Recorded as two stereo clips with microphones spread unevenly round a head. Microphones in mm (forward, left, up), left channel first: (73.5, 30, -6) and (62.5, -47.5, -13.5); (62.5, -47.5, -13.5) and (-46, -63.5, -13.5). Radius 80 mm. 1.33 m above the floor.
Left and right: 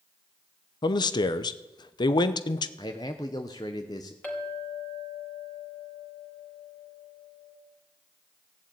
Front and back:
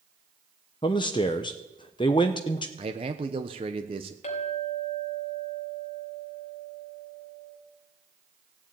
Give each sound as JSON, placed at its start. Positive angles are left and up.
{"t": 0.8, "sound": "a man speaking", "azimuth_deg": 65, "distance_m": 0.8}
{"t": 2.8, "sound": "a man speaking", "azimuth_deg": 140, "distance_m": 0.9}
{"t": 4.2, "sound": "a clink", "azimuth_deg": 10, "distance_m": 3.5}